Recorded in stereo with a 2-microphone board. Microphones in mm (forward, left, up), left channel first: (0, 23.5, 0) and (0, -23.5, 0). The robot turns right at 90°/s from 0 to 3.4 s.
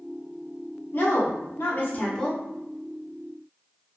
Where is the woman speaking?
50° left, 0.8 m; by 2.4 s straight behind, 0.8 m.